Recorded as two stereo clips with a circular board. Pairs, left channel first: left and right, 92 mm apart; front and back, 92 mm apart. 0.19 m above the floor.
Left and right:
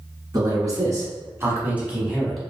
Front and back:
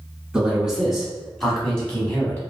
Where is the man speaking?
100° right, 1.5 m; by 2.4 s 10° left, 1.1 m.